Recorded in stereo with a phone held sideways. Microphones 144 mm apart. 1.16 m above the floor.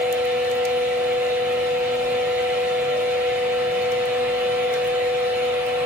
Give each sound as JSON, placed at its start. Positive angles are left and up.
{"t": 0.0, "sound": "a fan", "side_deg": -15, "distance_m": 5.5}